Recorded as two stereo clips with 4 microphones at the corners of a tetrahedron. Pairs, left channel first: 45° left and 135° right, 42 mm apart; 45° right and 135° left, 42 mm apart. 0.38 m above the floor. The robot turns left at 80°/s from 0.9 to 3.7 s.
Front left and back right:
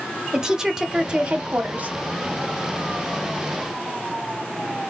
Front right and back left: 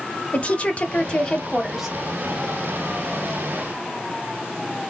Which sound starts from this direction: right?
A woman speaking, at 0.3 s.